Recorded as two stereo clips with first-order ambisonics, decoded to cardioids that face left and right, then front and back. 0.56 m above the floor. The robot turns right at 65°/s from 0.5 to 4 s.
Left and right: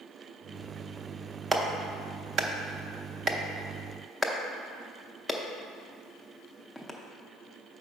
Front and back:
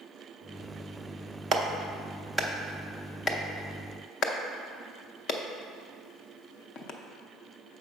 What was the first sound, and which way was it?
A clap, 160° right.